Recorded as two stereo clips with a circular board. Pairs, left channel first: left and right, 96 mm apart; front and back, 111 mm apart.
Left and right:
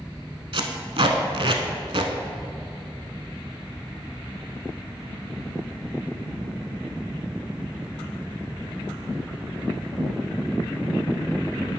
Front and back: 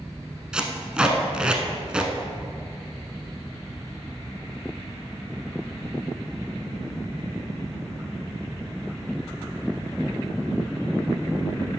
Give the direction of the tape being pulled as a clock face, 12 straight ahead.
3 o'clock.